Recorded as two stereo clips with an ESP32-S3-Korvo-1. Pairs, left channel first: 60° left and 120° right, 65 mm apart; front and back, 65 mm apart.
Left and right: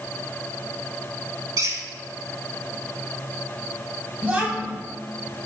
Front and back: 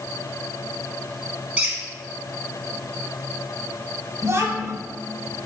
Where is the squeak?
110° right, 0.8 m.